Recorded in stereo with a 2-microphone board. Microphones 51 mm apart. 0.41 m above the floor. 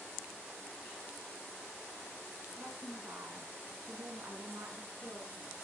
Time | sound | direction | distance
2.6 | a woman speaking | 50° right (ahead or behind) | 5 m